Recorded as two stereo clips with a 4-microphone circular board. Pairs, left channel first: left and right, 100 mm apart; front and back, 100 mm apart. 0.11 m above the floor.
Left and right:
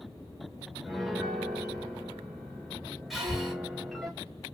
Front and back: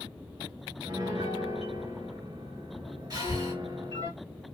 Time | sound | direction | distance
0.8 | a piano | straight behind | 1.7 m
3.1 | breathing | 175° right | 2 m